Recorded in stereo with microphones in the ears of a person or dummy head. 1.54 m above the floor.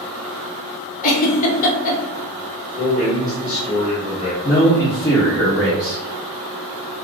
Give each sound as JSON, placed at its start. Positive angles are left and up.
{"t": 1.0, "sound": "a giggle", "side_deg": 45, "distance_m": 0.6}
{"t": 2.8, "sound": "a man speaking", "side_deg": 35, "distance_m": 1.2}
{"t": 4.4, "sound": "a man speaking", "side_deg": 25, "distance_m": 0.6}